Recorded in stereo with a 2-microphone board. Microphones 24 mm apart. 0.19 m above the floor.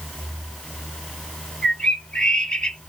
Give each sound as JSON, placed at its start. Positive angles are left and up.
{"t": 1.6, "sound": "a bird", "side_deg": 40, "distance_m": 1.2}